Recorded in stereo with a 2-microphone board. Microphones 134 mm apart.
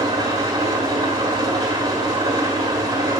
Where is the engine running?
30° right (ahead or behind), 1.7 m.